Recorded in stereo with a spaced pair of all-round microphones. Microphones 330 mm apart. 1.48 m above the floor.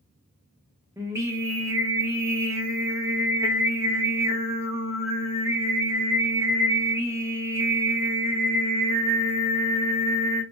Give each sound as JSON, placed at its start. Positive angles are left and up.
{"t": 1.0, "sound": "singing", "side_deg": -10, "distance_m": 1.0}